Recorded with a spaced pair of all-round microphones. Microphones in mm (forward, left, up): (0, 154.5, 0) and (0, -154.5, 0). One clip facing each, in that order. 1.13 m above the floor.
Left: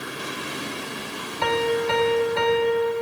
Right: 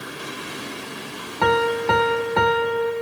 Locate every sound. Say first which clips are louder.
1.4 s a piano: right 2 dB; 65° right (ahead or behind), 0.8 m